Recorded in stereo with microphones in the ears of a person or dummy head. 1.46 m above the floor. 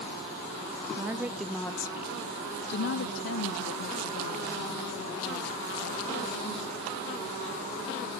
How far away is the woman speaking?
About 0.8 m.